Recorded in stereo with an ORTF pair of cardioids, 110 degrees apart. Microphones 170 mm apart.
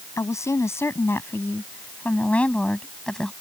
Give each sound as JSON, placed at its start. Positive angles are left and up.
{"t": 0.2, "sound": "a woman speaking", "azimuth_deg": 20}